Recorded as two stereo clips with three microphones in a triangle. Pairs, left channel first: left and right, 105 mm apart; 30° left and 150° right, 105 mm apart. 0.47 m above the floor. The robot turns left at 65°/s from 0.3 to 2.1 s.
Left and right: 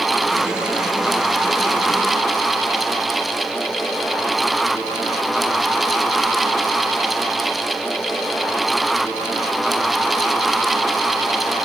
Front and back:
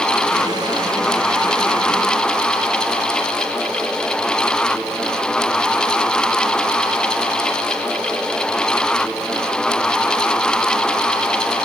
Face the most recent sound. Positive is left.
No sound to turn to.